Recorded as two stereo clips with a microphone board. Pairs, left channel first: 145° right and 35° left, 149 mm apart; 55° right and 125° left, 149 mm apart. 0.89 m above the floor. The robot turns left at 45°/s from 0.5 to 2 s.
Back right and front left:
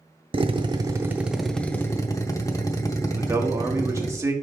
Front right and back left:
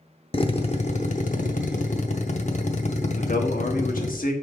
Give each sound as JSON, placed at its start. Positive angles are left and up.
{"t": 0.3, "sound": "a drill", "azimuth_deg": -15, "distance_m": 0.7}
{"t": 3.2, "sound": "a man speaking", "azimuth_deg": -35, "distance_m": 1.2}